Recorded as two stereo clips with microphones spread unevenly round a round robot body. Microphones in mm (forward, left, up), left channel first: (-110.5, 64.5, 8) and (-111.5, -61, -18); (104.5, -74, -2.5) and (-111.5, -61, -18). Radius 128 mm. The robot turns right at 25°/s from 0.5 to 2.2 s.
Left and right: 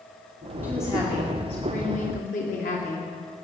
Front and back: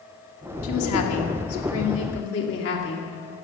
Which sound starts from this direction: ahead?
A woman speaking, at 0.6 s.